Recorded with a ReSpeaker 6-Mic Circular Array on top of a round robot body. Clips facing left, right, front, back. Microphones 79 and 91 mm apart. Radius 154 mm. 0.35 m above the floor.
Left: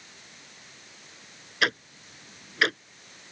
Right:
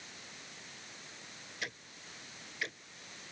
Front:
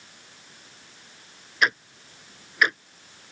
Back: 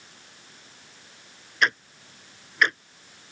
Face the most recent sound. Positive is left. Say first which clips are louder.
# left 17 dB, even
turn(degrees=85)